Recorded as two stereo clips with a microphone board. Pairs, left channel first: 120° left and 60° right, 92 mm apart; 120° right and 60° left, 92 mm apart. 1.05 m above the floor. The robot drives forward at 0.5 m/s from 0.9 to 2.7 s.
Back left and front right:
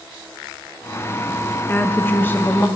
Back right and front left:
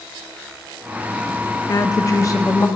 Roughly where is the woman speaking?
Behind.